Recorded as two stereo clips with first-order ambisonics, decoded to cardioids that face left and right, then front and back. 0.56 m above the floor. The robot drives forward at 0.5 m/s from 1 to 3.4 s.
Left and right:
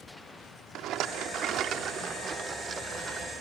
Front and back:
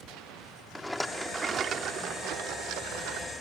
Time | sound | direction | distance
0.8 | a rattle | 85° right | ?